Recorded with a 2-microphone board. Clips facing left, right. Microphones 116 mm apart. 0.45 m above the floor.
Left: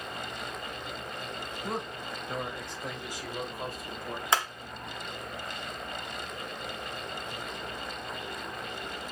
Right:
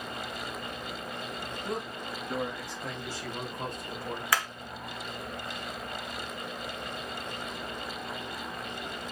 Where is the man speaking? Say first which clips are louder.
Even; 35° left (ahead or behind), 2.5 m; by 4.2 s 10° right (ahead or behind), 1.8 m.